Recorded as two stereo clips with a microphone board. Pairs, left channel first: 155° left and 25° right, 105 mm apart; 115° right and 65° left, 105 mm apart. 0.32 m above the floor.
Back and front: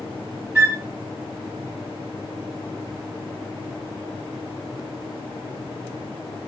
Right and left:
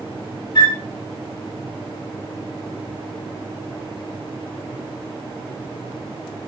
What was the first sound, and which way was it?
A flute, 90° right.